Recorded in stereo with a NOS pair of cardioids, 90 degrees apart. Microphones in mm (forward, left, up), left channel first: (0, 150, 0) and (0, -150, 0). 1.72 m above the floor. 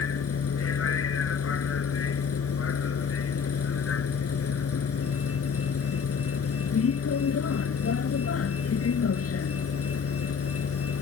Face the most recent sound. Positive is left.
turn(degrees=50)